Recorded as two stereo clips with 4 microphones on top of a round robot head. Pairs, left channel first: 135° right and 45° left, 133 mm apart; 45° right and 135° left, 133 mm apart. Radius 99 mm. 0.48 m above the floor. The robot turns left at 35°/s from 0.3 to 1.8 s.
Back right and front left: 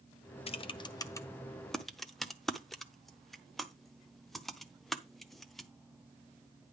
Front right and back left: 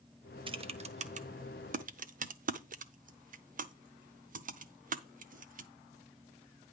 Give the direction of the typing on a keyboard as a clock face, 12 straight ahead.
6 o'clock.